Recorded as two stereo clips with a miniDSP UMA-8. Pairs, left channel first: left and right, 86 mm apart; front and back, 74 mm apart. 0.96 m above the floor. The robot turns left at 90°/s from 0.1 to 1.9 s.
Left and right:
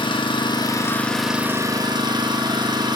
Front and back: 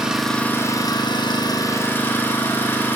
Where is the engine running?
100° left, 1.2 m; by 3.0 s 60° right, 1.2 m.